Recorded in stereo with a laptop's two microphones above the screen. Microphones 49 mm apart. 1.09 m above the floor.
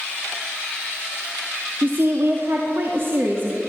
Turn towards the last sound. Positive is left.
turn(degrees=-45)  # may be behind; listen again after turning